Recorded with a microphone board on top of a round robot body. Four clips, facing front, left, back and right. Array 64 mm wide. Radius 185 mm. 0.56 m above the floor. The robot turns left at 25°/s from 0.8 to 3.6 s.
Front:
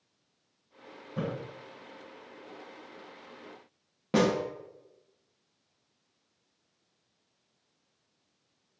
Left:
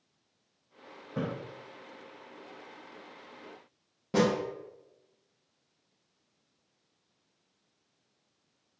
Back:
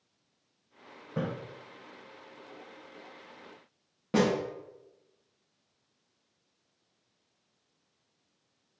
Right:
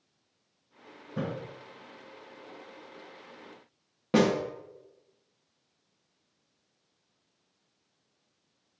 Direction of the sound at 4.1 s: 65° right.